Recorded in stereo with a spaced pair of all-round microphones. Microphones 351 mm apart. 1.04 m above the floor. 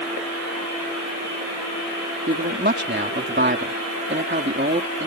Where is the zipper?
No zipper in this recording.